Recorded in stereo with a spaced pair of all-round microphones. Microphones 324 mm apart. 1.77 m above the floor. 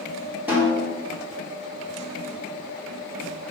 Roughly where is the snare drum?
Centre.